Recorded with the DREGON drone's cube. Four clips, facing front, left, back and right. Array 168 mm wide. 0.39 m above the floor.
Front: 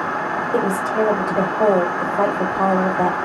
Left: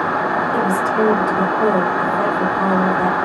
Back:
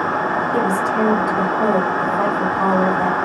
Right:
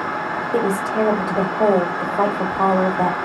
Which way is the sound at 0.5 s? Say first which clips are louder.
Right 2 dB, front 1 dB; 45° right.